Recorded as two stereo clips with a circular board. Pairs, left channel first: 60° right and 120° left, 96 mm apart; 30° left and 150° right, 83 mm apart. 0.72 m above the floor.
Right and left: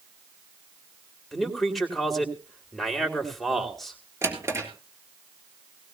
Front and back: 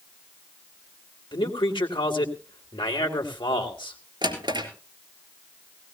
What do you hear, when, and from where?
1.3 s a man speaking: 30° left, 2.5 m
4.2 s a drawer: straight behind, 3.5 m